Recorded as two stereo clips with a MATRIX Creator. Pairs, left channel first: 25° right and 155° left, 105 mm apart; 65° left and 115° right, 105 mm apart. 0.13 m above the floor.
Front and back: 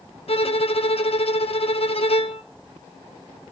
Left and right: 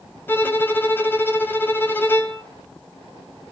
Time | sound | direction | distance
0.3 | a violin | 5° right | 1.2 m